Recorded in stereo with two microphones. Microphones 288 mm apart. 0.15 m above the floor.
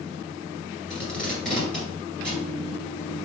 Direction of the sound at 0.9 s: 5° left (ahead or behind).